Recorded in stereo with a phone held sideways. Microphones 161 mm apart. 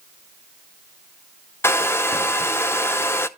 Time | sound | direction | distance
1.6 | a hair dryer | 15° left (ahead or behind) | 0.6 m